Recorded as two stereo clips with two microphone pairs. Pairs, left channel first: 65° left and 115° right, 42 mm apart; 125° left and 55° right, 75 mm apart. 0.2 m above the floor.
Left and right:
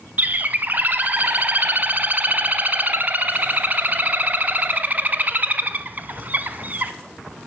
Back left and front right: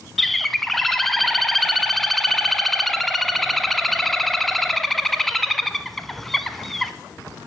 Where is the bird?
145° right, 0.5 m.